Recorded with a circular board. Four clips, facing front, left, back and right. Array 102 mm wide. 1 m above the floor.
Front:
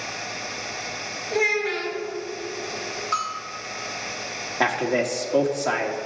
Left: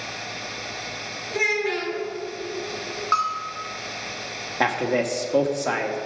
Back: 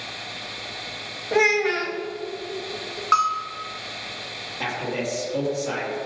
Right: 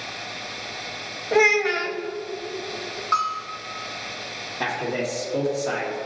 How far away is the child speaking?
About 1.5 m.